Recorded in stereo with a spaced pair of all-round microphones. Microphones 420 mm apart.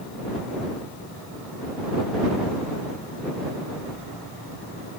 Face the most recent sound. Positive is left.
No sound to turn to.